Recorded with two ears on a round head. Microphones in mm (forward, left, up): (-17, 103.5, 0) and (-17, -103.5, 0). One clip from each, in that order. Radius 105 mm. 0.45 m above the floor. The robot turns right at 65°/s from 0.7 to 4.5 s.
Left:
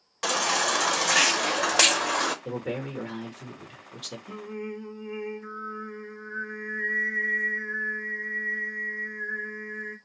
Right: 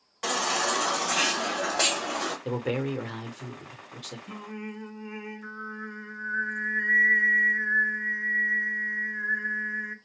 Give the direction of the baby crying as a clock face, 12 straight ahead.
11 o'clock.